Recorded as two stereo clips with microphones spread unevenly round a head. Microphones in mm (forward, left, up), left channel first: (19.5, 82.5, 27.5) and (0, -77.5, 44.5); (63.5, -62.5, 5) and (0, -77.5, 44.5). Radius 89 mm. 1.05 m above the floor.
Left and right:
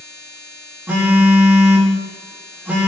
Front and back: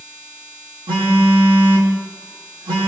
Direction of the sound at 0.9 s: Straight behind.